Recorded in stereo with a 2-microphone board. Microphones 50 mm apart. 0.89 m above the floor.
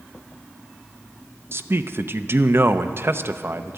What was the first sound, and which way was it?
A man speaking, 50° right (ahead or behind).